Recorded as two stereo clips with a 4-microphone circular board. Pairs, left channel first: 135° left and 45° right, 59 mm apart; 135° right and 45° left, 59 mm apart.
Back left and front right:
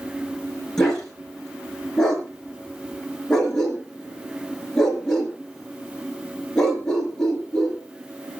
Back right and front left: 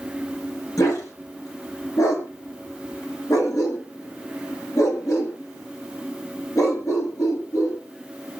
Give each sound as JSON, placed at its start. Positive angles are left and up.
{"t": 0.8, "sound": "a dog barking", "azimuth_deg": -145, "distance_m": 5.0}